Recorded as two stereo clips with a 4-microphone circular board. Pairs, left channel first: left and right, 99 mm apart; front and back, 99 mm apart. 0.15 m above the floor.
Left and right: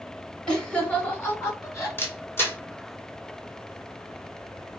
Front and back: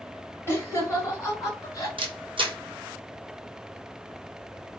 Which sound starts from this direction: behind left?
A camera shutter, at 2.0 s.